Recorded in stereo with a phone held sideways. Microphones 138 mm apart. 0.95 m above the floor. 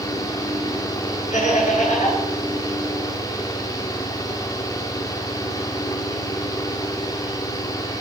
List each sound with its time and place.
0.0 s a fan: 25° left (ahead or behind), 2.5 m
1.3 s laughter: 60° left (ahead or behind), 9.5 m